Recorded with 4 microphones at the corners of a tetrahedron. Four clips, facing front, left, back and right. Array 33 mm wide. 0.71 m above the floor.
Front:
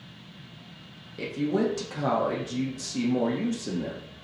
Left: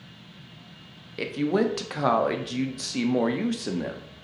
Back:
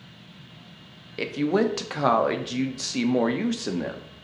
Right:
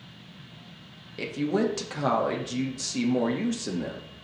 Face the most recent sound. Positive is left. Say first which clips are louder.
# left 2 dB, back 3 dB
turn(degrees=155)